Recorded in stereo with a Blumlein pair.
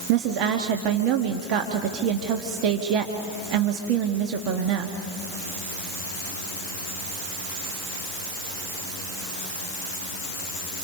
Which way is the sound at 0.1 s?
40° right.